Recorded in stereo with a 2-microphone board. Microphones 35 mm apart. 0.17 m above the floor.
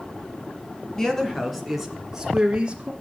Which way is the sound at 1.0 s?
15° left (ahead or behind).